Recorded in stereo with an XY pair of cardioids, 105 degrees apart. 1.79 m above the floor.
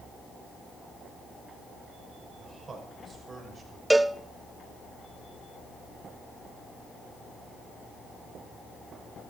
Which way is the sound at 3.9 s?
10° right.